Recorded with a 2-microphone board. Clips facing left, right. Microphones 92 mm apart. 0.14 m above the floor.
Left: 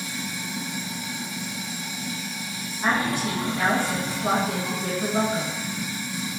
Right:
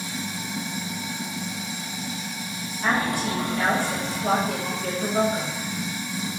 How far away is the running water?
About 0.8 m.